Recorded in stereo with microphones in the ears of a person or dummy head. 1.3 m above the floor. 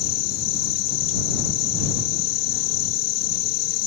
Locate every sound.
0.0 s an insect: 55° left (ahead or behind)